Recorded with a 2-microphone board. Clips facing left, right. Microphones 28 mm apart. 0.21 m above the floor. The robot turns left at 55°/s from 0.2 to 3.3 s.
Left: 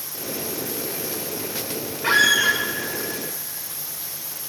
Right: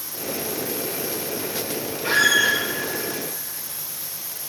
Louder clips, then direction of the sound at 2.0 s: Left 1 dB; 60° left (ahead or behind).